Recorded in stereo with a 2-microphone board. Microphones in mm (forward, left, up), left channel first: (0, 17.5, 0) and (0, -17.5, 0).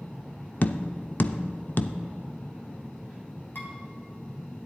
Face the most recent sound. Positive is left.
turn(degrees=75)  # may be behind; listen again after turning